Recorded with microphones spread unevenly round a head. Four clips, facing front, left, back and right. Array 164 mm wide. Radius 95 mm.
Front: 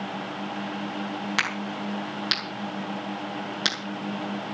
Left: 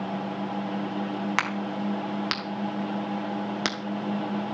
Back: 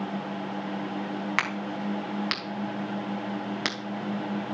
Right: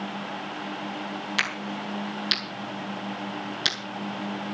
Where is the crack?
80° left, 3.5 m.